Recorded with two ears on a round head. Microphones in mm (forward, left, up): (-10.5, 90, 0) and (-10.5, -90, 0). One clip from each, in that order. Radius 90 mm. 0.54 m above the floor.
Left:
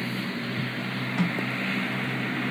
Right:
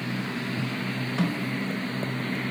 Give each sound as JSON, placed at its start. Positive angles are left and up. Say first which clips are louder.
{"t": 1.2, "sound": "a snare drum", "louder": "left 2 dB", "side_deg": 15, "distance_m": 1.3}